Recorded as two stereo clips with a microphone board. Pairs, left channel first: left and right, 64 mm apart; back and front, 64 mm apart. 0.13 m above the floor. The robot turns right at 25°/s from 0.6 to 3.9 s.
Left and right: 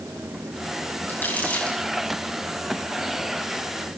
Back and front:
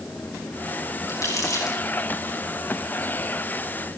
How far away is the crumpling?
About 8 m.